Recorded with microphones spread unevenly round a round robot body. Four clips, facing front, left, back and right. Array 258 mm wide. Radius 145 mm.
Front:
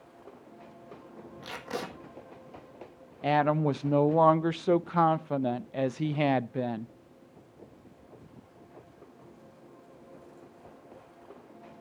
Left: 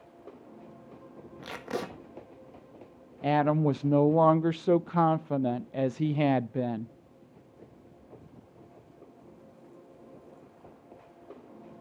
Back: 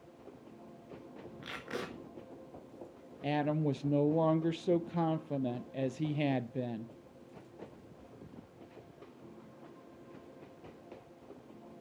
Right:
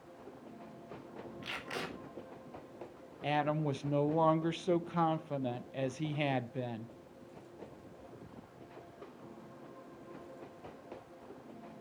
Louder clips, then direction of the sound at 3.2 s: Left 8 dB, front 7 dB; 20° left.